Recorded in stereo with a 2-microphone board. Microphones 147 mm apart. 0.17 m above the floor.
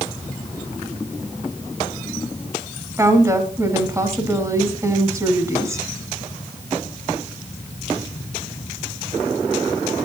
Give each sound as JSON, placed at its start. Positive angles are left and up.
{"t": 3.0, "sound": "a woman speaking", "side_deg": -20, "distance_m": 1.6}